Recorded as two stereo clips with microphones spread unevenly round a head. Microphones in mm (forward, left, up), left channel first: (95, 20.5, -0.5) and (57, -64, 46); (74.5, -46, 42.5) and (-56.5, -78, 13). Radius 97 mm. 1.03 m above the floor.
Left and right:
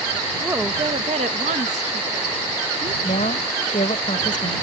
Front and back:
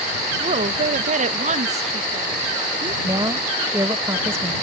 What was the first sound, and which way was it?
A woman speaking, 150° left.